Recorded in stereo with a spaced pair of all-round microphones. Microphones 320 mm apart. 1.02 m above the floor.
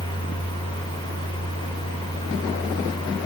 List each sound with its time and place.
0.0 s a fan: 15° left (ahead or behind), 5.5 m